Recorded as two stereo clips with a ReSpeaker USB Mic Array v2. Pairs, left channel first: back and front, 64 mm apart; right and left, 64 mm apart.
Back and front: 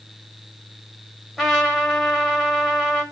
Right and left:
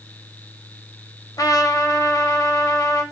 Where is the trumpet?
85° right, 0.9 m.